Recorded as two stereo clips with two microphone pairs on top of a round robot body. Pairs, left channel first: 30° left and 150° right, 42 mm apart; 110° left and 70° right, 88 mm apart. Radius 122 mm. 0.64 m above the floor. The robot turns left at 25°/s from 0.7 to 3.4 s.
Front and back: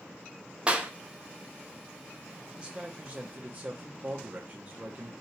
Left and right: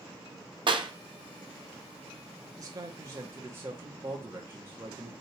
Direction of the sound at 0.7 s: 90° right.